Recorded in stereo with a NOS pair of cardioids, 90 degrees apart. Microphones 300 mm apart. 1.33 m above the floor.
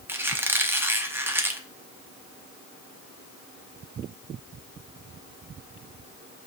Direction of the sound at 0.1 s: 5° right.